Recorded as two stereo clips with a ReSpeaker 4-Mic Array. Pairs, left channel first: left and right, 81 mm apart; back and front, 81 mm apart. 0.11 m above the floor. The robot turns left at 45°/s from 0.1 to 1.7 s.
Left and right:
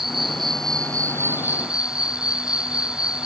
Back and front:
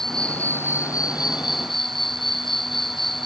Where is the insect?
95° right; by 3.3 s 170° right.